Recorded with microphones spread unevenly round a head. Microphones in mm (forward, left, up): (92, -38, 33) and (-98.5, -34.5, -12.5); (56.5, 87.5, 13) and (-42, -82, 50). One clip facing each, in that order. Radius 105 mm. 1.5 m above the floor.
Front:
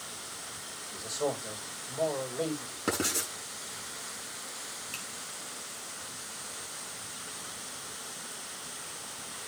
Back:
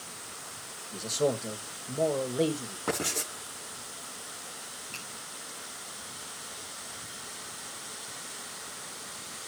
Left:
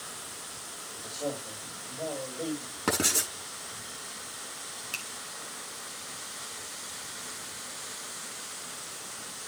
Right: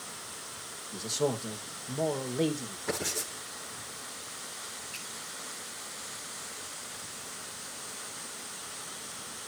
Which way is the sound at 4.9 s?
70° left.